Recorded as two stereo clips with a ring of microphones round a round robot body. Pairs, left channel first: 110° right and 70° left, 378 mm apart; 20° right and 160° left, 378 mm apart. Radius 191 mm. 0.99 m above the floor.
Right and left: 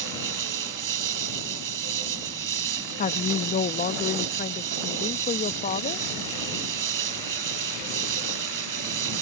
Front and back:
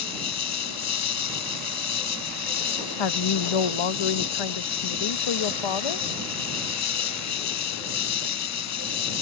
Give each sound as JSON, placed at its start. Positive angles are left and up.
{"t": 0.0, "sound": "an insect", "azimuth_deg": 25}
{"t": 3.0, "sound": "a woman speaking", "azimuth_deg": -40}